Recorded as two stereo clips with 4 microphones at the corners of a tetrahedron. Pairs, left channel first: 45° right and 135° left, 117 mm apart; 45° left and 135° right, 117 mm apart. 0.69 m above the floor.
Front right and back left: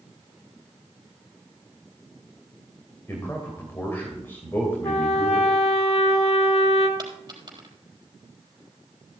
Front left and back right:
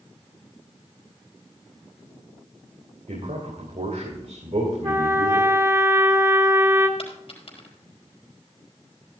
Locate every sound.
3.1 s a man speaking: 115° right, 2.5 m
4.8 s a trumpet: 70° right, 1.5 m
7.0 s a dropped coin: 80° left, 3.5 m